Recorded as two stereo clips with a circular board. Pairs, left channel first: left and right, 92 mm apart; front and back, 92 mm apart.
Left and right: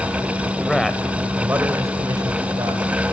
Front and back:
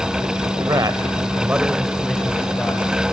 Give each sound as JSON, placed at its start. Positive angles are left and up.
{"t": 0.6, "sound": "a man speaking", "azimuth_deg": 170, "distance_m": 1.7}